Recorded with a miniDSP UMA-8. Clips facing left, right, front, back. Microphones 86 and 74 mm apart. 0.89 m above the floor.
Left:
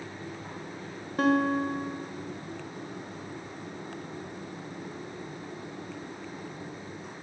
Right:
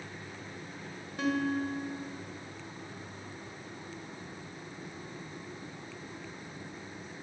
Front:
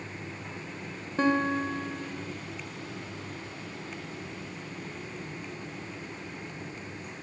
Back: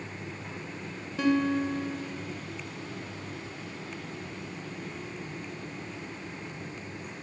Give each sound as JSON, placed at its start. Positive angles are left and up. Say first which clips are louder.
{"t": 1.2, "sound": "a guitar", "louder": "left 6 dB, even", "azimuth_deg": 50, "distance_m": 3.0}